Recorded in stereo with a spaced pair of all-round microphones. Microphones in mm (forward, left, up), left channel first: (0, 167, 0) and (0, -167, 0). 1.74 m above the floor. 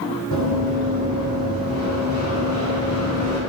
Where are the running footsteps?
55° left (ahead or behind), 3 m; by 3.4 s 50° left (ahead or behind), 5 m.